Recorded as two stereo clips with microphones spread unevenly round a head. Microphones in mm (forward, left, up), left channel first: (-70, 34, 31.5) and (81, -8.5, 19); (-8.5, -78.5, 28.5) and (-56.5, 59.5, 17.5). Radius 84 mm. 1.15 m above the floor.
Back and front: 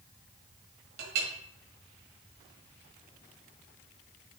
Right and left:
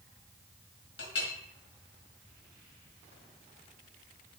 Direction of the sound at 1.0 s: 45° right.